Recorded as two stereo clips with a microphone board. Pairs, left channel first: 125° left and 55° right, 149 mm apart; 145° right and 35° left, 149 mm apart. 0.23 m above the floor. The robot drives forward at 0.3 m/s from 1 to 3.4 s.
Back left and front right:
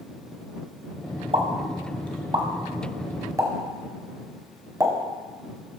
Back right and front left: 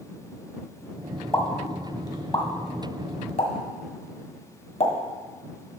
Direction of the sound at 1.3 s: 80° right.